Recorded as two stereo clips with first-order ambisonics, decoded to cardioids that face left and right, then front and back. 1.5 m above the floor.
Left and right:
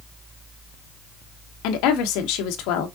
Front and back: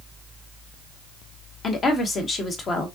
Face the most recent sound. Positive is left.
turn(degrees=70)